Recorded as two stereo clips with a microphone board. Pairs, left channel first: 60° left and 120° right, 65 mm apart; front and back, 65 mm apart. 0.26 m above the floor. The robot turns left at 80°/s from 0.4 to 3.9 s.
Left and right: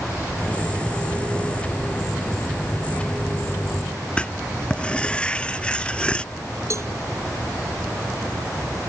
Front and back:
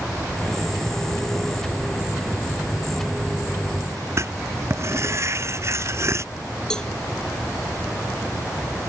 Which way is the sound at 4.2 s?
135° left.